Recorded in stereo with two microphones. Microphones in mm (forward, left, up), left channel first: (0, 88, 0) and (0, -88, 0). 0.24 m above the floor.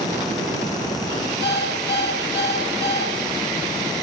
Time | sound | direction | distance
1.4 | an alarm clock | 80° left | 4 m